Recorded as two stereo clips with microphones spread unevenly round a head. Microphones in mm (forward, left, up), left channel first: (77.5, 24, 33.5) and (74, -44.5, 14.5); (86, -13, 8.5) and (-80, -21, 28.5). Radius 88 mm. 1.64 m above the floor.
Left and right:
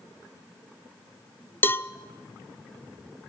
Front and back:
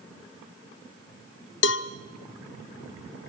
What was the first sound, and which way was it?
A cowbell, 35° left.